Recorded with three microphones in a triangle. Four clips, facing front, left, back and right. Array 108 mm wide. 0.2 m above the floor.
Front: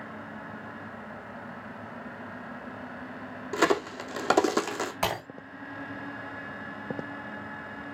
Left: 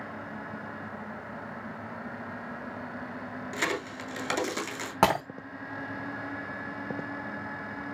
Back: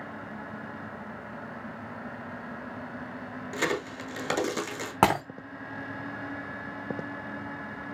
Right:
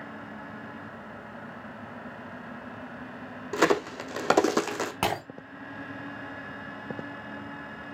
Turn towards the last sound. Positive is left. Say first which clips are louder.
# left 6 dB, back 9 dB
turn(degrees=155)